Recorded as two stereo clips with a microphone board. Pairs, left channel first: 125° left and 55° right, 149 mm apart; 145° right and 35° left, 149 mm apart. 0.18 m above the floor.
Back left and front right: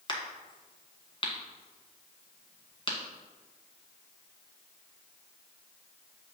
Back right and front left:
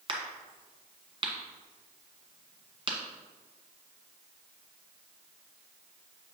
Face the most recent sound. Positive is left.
turn(degrees=80)